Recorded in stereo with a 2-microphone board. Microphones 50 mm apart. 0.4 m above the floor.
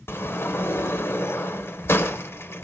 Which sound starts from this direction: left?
A sliding door, at 0.1 s.